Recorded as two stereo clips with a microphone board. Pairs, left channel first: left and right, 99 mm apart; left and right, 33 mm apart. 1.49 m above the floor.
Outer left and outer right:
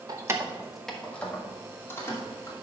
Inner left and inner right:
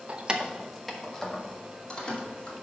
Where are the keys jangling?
40° right (ahead or behind), 0.9 m; by 2.5 s 25° left (ahead or behind), 3 m.